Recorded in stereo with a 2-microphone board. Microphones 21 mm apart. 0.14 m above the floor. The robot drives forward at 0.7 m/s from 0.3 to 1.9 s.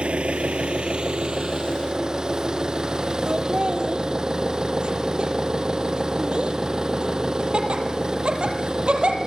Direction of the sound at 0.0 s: 70° right (ahead or behind).